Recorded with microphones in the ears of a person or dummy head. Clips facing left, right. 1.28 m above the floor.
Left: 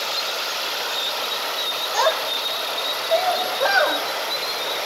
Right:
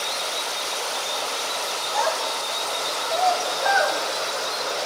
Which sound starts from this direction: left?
A child speaking, at 1.9 s.